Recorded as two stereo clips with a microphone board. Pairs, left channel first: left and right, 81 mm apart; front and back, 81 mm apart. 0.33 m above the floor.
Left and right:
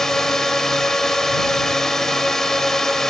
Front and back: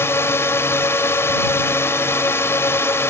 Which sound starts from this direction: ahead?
A drone, at 0.0 s.